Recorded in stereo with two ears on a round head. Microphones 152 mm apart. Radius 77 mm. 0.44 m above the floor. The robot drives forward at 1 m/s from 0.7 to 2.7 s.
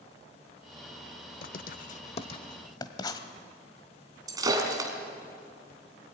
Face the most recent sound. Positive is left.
turn(degrees=-25)  # may be behind; listen again after turning